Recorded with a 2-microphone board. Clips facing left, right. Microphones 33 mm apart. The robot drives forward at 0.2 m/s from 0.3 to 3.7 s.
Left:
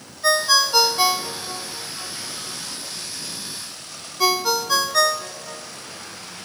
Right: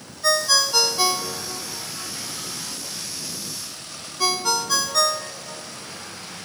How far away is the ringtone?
About 0.7 m.